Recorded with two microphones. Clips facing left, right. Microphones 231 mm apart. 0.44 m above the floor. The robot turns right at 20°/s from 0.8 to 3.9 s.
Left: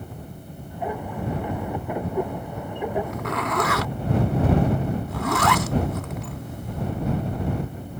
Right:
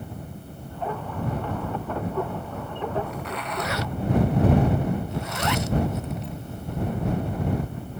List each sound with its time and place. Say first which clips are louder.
3.1 s a zipper: left 5 dB; 60° left (ahead or behind); by 6.9 s 80° left